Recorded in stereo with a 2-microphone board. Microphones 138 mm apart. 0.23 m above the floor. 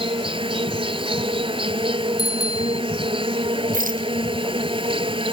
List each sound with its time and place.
0.0 s an insect: 40° right (ahead or behind)
2.2 s a bicycle bell: 30° left (ahead or behind)
3.7 s a rattle: 90° right